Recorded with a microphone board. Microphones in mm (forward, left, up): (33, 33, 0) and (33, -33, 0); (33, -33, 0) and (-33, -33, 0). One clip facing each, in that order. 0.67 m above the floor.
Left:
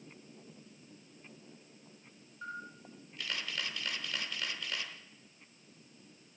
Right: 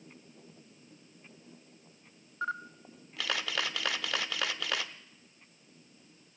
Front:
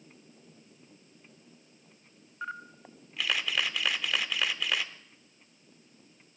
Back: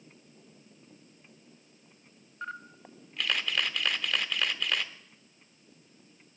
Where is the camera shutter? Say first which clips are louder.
Right 8 dB, front 1 dB; 85° right, 0.6 m.